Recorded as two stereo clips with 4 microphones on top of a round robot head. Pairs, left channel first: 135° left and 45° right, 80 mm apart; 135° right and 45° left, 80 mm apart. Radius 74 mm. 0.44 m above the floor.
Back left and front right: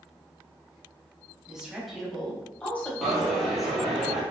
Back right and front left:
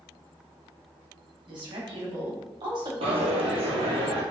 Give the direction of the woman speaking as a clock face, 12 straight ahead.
11 o'clock.